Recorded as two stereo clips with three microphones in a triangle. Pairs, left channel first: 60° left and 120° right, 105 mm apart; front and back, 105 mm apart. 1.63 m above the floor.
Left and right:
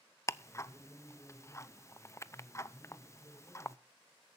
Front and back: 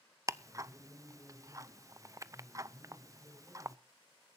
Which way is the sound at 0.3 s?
120° left.